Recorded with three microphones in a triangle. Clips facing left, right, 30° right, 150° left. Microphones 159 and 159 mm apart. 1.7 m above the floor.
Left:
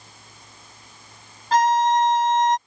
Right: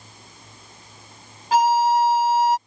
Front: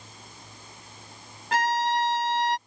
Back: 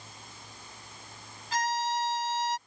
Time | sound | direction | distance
1.5 | a violin | 5° right | ?